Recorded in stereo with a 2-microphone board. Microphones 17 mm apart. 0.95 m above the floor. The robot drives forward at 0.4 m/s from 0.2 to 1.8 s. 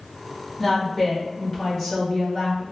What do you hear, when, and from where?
0.6 s a woman speaking: 10° left (ahead or behind), 1.3 m; by 2.6 s 5° left (ahead or behind), 1.8 m